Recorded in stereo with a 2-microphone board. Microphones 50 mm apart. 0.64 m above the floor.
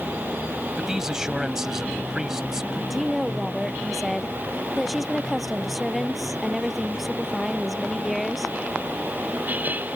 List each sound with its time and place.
0.8 s a man speaking: 10° right (ahead or behind)
2.9 s a woman speaking: 5° right (ahead or behind)